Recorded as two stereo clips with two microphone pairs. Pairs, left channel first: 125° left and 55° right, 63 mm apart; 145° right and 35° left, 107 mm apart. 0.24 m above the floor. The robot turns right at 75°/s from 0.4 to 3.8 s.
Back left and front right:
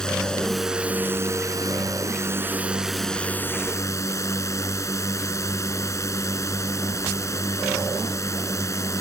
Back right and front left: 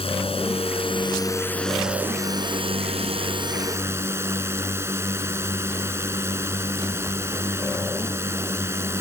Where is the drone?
160° right; by 9.0 s 95° left.